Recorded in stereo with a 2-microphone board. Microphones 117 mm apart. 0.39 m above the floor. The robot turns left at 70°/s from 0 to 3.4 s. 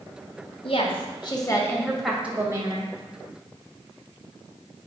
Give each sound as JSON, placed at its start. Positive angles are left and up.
{"t": 0.6, "sound": "a woman speaking", "azimuth_deg": 100, "distance_m": 2.0}